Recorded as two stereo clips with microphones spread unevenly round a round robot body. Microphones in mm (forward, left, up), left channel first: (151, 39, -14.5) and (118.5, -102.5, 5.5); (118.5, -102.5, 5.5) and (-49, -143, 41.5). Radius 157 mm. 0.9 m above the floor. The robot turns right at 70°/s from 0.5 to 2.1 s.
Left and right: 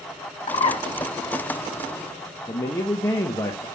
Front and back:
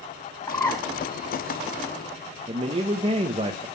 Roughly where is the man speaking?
Behind left.